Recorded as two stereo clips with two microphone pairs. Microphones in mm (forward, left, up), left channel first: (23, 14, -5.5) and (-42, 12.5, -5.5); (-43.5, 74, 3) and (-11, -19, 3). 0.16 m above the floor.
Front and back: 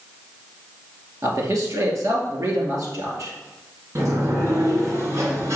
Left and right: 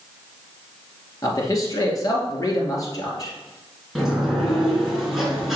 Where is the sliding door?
160° right, 2 m.